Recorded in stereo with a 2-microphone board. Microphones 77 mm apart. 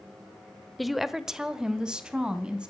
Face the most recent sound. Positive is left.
turn(degrees=-10)  # may be behind; listen again after turning